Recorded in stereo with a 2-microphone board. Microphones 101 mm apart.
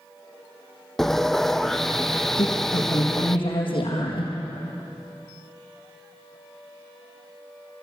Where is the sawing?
5° left (ahead or behind), 0.9 m.